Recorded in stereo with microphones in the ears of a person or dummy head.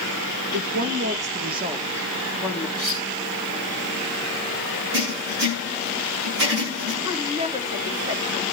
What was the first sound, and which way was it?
A woman speaking, 60° right (ahead or behind).